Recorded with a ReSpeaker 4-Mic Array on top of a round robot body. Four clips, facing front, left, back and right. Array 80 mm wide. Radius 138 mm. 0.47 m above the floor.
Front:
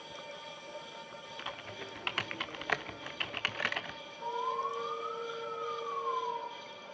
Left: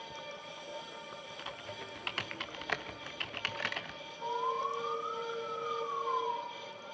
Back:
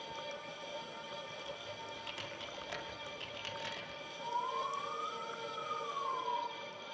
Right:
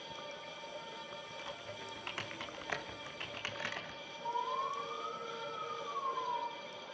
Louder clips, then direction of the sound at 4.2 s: Left 3 dB, front 3 dB; 65° left.